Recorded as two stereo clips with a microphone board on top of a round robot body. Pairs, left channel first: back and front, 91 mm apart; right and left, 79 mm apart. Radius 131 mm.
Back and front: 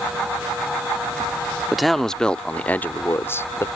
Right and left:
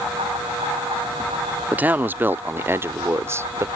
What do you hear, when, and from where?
1.7 s a man speaking: 85° left; by 3.7 s 130° left